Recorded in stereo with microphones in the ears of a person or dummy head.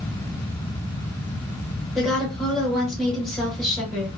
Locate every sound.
1.9 s a woman speaking: centre (ahead or behind), 1.0 m